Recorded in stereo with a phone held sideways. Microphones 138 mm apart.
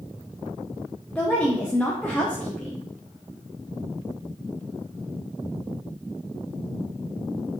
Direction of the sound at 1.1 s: 10° left (ahead or behind).